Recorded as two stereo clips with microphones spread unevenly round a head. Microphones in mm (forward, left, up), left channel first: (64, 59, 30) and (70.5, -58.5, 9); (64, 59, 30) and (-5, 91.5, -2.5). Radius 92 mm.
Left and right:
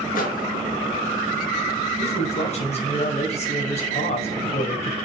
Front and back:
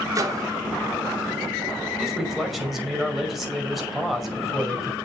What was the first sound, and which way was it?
A microwave, 120° left.